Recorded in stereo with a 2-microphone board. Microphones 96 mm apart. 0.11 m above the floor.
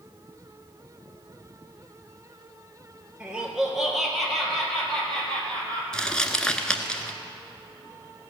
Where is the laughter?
10° right (ahead or behind), 2.5 m; by 5.8 s 15° left (ahead or behind), 3.5 m.